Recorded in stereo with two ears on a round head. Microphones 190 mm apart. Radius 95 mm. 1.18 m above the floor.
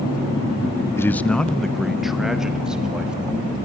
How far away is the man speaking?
About 0.7 m.